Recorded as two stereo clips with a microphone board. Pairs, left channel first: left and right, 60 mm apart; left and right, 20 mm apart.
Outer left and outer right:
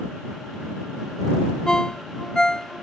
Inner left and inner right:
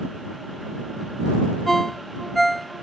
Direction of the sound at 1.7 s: 10° left (ahead or behind).